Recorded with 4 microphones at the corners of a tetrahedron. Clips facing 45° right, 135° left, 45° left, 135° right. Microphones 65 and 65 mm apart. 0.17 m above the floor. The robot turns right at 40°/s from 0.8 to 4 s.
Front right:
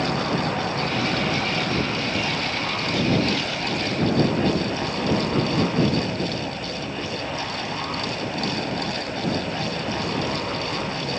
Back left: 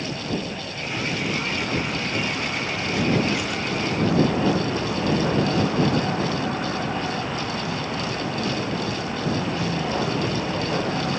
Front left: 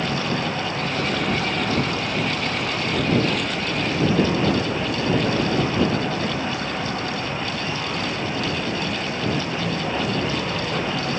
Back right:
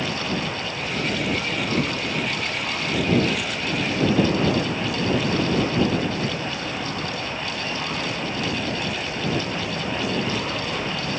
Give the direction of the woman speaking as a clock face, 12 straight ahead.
No woman speaking in this recording.